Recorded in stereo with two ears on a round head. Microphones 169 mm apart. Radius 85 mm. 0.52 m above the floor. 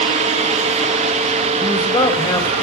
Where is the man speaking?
20° left (ahead or behind), 2.5 m.